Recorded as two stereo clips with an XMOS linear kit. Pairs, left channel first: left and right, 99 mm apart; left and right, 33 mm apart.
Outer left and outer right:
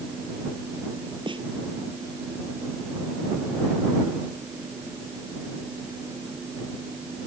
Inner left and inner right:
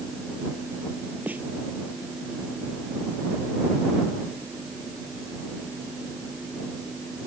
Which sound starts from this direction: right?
A snare drum, at 1.3 s.